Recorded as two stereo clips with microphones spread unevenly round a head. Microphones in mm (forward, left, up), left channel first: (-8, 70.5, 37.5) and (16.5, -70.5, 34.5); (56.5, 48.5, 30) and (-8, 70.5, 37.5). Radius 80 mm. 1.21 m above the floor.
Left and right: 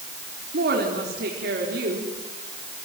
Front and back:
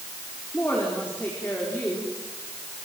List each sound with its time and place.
0.5 s a woman speaking: 90° right, 4 m